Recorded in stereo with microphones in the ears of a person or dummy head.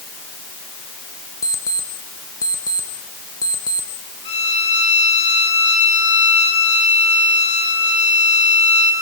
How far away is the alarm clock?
About 0.9 m.